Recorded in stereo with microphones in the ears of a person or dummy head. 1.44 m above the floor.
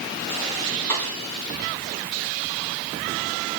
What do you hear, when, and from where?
0.9 s a snare drum: 15° left (ahead or behind), 6 m